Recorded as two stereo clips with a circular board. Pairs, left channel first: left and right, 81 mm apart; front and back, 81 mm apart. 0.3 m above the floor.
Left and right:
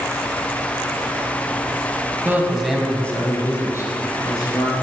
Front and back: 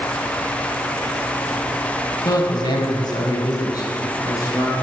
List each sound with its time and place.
2.2 s a man speaking: 30° right, 1.7 m; by 4.7 s 50° left, 4 m